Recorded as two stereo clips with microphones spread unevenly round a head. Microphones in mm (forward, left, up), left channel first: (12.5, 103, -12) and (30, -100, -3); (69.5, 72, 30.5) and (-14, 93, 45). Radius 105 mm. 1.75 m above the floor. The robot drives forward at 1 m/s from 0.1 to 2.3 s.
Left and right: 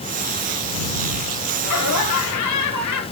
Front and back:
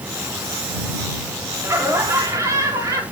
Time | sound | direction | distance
1.6 | laughter | 105° left | 4 m